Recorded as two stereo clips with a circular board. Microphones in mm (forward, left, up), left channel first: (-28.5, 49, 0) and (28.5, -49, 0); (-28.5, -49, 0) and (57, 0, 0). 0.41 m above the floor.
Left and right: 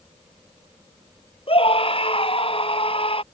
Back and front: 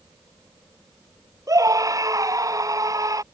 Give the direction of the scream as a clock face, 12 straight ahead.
9 o'clock.